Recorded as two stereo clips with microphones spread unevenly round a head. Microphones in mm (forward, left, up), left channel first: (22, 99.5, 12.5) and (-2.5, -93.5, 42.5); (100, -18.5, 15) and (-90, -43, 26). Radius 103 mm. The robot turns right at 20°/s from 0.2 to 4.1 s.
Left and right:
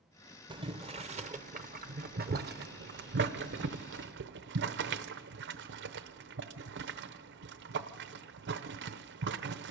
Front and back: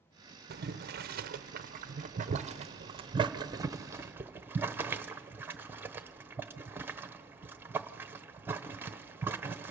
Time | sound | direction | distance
0.5 | boiling | 165° right | 0.9 m